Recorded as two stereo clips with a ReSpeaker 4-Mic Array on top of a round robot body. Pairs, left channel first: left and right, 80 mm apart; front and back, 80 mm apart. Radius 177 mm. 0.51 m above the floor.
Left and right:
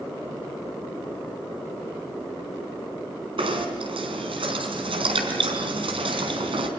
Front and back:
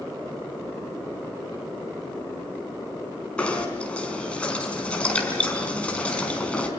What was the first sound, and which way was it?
Knocking, 80° right.